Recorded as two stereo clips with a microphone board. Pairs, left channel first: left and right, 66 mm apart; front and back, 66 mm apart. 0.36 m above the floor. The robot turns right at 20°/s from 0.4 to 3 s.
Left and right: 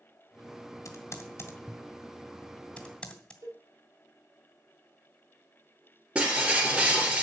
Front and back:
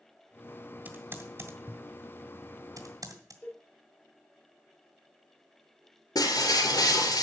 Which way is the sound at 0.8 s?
125° left.